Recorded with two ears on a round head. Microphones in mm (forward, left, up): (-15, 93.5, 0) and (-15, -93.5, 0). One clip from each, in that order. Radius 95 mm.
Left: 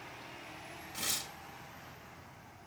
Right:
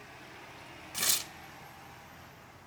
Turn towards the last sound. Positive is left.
turn(degrees=-45)  # may be behind; listen again after turning